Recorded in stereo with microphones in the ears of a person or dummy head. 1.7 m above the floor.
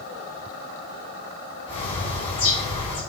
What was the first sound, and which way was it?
A bird, 35° left (ahead or behind).